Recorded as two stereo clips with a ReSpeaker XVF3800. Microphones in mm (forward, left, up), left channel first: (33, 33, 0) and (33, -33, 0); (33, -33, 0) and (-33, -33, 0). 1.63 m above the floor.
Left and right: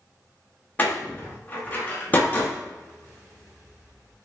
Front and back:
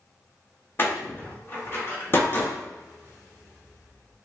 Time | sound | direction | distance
0.8 | a door slam | 35° left | 1.2 m